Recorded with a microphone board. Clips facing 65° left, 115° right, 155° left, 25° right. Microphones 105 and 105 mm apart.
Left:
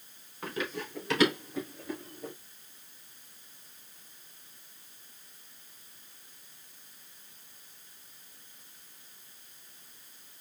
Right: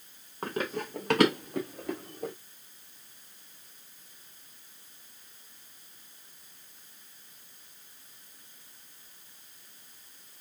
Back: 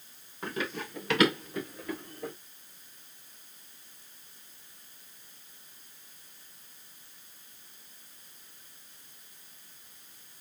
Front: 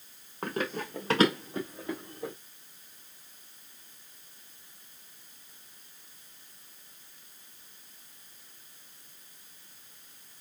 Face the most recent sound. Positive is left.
turn(degrees=-95)